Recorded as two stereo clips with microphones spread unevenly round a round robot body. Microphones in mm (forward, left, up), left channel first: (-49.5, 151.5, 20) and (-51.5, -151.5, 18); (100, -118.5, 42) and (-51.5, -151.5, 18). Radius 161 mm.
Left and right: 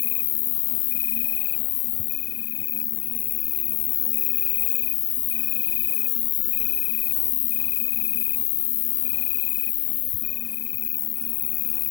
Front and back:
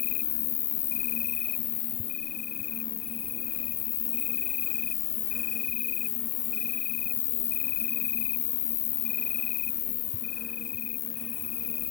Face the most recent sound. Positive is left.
turn(degrees=40)